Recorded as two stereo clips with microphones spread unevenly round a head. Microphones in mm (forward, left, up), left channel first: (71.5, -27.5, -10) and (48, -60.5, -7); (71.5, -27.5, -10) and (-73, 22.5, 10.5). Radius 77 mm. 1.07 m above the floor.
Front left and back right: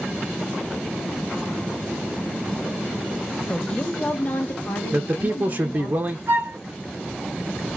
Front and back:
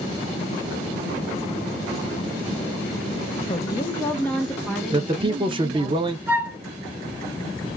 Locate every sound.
3.5 s a woman speaking: 15° right, 0.8 m; by 5.9 s 80° left, 1.6 m
4.9 s a man speaking: 145° right, 0.7 m
6.3 s a flute: 115° right, 0.7 m